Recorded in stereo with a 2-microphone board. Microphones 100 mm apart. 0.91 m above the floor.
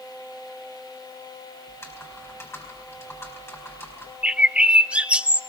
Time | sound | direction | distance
1.7 | typing on a keyboard | 25° left (ahead or behind) | 4.5 m
4.2 | a bird | 10° right (ahead or behind) | 0.6 m